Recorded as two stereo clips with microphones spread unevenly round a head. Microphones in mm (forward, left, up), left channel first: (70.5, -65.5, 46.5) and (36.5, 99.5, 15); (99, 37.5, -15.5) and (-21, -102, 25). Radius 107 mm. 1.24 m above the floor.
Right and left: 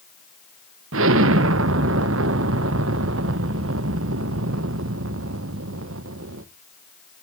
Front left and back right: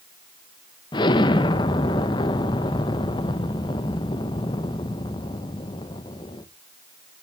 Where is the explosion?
125° left, 0.5 m.